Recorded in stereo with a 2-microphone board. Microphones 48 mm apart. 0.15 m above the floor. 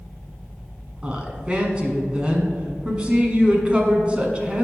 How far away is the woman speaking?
About 1.5 m.